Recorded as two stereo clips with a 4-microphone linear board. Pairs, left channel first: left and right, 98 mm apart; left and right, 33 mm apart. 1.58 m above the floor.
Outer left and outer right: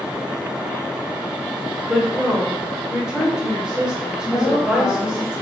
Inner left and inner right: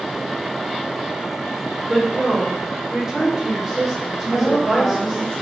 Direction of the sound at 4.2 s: 85° left.